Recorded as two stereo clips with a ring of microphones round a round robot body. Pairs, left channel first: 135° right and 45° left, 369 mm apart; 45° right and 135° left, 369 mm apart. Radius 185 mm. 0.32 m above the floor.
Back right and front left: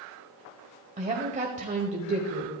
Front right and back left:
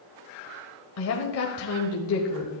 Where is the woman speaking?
20° right, 1.5 m.